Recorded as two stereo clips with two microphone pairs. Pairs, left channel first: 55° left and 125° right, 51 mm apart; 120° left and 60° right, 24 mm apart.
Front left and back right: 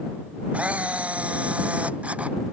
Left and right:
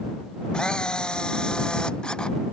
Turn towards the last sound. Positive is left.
turn(degrees=175)